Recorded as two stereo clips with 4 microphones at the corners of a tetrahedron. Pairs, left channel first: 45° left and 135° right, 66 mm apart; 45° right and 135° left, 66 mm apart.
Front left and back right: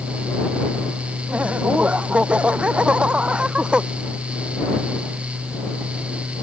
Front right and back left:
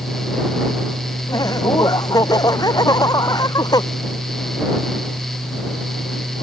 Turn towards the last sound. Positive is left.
turn(degrees=-60)